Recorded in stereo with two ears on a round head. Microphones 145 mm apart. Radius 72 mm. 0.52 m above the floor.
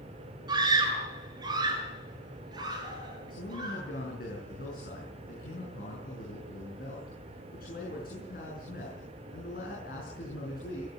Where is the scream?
25° right (ahead or behind), 7 m.